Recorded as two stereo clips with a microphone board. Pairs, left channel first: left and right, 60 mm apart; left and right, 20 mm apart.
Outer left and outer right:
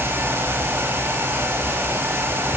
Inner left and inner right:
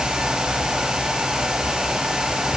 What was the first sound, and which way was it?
Only background noise.